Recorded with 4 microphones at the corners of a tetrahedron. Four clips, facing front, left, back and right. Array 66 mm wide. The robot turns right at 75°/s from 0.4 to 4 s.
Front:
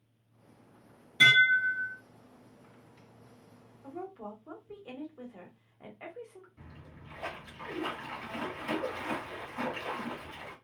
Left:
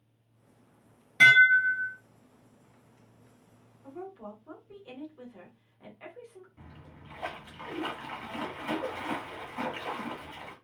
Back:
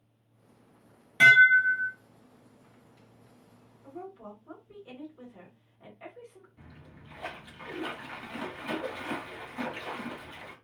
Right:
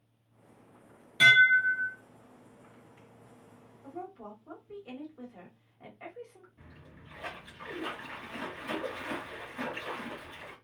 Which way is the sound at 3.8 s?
35° right.